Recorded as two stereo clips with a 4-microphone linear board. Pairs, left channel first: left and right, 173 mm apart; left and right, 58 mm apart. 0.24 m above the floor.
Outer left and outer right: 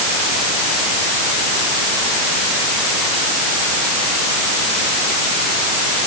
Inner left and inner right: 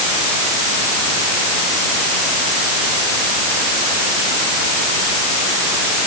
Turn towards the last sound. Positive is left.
No sound to turn to.